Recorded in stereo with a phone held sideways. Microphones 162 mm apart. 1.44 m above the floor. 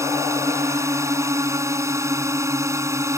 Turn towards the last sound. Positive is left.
turn(degrees=-15)  # may be behind; listen again after turning